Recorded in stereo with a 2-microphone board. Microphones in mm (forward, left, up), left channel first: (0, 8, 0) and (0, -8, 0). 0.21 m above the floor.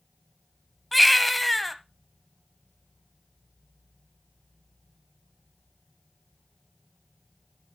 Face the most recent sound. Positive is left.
turn(degrees=5)  # may be behind; listen again after turning